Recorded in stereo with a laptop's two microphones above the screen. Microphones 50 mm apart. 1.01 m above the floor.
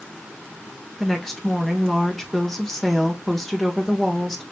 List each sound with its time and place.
1.0 s a woman speaking: 5° left (ahead or behind), 1.2 m